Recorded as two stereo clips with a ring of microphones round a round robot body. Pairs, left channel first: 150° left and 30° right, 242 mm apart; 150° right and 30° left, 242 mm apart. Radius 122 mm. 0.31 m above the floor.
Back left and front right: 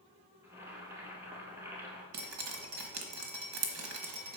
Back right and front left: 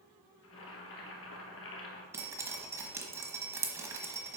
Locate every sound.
0.4 s boiling: 110° right, 1.8 m
2.1 s dripping: 50° right, 1.1 m